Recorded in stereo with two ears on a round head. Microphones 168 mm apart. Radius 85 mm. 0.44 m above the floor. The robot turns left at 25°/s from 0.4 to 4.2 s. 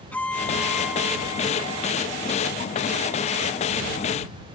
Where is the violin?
10° left; by 3.5 s 70° right.